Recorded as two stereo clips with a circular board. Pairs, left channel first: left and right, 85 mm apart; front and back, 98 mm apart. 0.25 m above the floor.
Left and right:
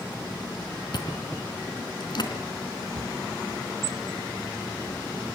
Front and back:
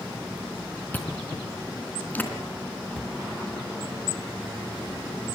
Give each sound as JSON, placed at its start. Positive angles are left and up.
{"t": 0.9, "sound": "chewing", "azimuth_deg": 70, "distance_m": 3.0}
{"t": 2.9, "sound": "a cupboard door", "azimuth_deg": -90, "distance_m": 1.0}